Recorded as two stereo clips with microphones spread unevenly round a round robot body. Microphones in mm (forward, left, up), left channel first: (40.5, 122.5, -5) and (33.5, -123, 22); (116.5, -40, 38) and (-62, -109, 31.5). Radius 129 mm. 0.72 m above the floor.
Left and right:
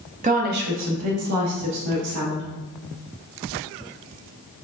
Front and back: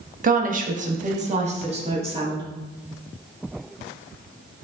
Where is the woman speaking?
150° right, 0.7 m; by 2.5 s 100° right, 1.5 m.